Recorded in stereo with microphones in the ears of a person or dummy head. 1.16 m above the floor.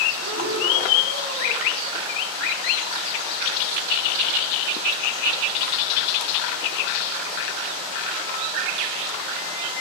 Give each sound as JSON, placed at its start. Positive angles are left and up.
{"t": 0.1, "sound": "breathing", "side_deg": -70, "distance_m": 2.5}